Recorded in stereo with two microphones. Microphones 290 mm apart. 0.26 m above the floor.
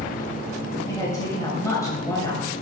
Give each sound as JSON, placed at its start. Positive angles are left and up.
{"t": 0.9, "sound": "a woman speaking", "side_deg": 10, "distance_m": 1.3}